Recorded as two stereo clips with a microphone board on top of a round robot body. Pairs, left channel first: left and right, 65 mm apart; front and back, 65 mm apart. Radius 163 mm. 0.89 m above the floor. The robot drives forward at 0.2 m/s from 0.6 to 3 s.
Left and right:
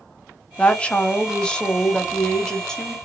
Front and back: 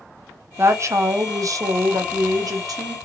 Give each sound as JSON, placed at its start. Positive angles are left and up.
{"t": 0.6, "sound": "a woman speaking", "azimuth_deg": 155, "distance_m": 0.5}